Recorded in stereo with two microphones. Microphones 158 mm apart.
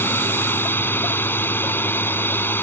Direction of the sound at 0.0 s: 15° left (ahead or behind).